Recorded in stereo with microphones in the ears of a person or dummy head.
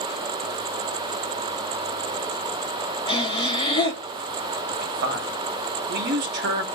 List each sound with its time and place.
3.1 s breathing: 30° left (ahead or behind), 4 m
4.7 s a man speaking: 45° right (ahead or behind), 0.7 m